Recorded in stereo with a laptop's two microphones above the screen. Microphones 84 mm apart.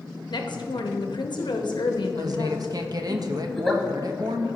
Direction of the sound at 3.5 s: 5° left (ahead or behind).